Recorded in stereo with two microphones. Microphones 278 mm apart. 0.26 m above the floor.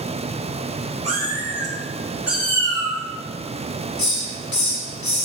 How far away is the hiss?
About 0.5 m.